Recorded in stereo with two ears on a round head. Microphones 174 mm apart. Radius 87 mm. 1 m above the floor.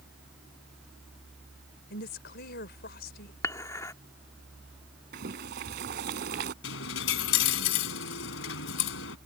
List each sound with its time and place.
1.9 s a woman speaking: 55° left (ahead or behind)
3.4 s dishes clattering: 15° left (ahead or behind)
5.1 s boiling: 55° right (ahead or behind)
6.6 s a dropped coin: 70° left (ahead or behind)